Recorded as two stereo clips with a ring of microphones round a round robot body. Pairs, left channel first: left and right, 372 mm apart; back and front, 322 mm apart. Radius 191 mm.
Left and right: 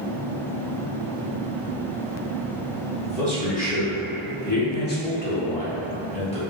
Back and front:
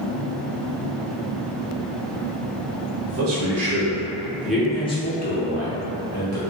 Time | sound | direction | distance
3.1 | a man speaking | 20° left | 1.3 m